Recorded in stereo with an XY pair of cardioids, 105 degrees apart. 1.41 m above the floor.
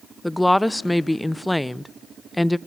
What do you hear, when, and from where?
0.2 s a woman speaking: 5° left, 0.6 m